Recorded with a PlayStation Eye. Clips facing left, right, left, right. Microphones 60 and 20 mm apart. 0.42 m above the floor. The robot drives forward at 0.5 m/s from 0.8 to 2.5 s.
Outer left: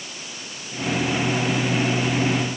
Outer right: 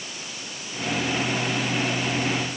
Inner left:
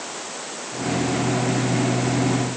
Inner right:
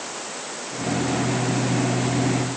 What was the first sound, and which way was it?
Only background noise.